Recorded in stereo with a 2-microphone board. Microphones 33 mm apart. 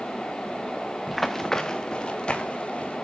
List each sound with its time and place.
1.1 s running footsteps: 5° right (ahead or behind), 1.0 m; by 3.0 s 35° left (ahead or behind), 3 m